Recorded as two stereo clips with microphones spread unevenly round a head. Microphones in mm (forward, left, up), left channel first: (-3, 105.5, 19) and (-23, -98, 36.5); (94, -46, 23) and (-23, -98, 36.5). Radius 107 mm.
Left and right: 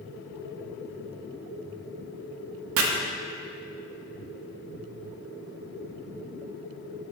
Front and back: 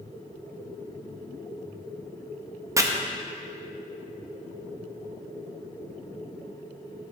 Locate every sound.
2.8 s chopping: 90° right, 1.1 m